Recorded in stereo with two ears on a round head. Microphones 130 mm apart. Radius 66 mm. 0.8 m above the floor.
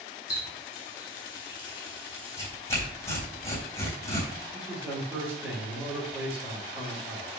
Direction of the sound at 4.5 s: 10° right (ahead or behind).